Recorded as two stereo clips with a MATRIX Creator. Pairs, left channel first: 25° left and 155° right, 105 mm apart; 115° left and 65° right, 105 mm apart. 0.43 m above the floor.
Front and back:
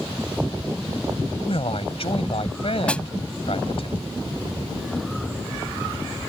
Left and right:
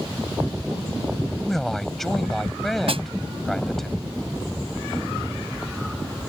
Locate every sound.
1.4 s a man speaking: 25° left
2.9 s a snare drum: 55° right